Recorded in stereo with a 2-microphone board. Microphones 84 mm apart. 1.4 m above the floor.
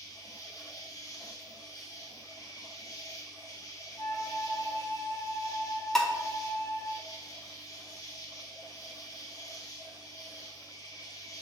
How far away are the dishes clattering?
About 0.6 m.